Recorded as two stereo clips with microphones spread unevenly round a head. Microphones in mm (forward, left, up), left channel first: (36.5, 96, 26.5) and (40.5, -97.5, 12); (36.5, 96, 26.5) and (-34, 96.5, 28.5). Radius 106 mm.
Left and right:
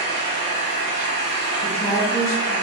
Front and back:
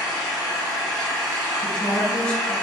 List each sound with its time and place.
0.0 s an engine running: 70° left, 1.1 m
1.6 s a woman speaking: 70° left, 1.1 m